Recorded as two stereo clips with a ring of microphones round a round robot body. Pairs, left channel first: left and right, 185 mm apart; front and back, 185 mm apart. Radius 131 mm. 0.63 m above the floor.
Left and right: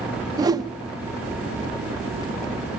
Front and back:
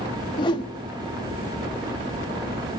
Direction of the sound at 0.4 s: 40° right.